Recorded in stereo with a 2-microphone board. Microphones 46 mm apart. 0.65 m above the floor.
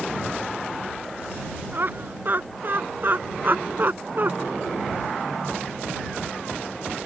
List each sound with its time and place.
1.7 s laughter: 50° right (ahead or behind); by 4.3 s 45° right (ahead or behind)